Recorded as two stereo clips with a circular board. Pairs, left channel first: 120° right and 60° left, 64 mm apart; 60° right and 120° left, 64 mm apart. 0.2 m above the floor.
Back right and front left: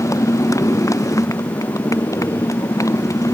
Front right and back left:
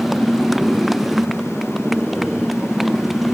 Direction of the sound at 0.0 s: 150° right.